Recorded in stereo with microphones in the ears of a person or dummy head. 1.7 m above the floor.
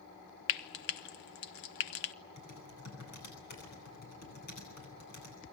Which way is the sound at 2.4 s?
50° left (ahead or behind).